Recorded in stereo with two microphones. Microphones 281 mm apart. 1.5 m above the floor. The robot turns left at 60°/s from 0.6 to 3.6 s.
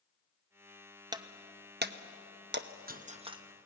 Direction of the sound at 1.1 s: 15° right (ahead or behind).